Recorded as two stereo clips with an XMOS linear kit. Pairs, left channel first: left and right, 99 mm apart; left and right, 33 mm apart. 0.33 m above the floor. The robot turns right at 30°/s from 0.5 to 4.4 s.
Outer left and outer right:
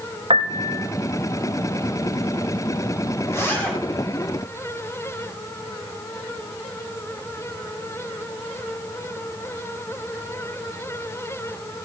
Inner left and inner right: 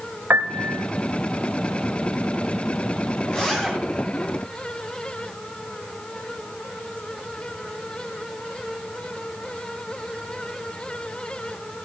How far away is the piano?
About 0.5 m.